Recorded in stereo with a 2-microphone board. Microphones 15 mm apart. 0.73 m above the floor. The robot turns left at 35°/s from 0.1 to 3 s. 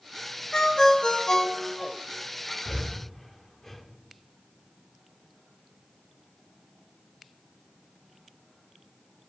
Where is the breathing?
20° left (ahead or behind), 0.7 m; by 3.8 s 10° left (ahead or behind), 0.7 m.